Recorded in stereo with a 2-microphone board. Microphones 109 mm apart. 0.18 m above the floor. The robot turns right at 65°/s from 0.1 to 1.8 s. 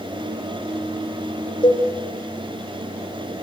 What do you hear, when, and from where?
1.6 s a cowbell: 45° left (ahead or behind), 7 m; by 1.9 s 30° left (ahead or behind), 7 m